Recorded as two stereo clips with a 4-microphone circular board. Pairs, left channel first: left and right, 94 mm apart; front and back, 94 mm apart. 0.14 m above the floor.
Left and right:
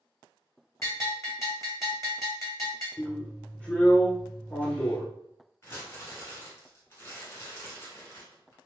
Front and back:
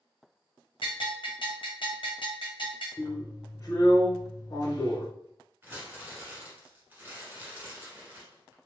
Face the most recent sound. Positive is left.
turn(degrees=125)